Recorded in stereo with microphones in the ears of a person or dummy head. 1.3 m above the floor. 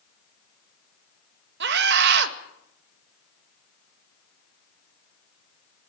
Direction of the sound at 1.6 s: 70° right (ahead or behind).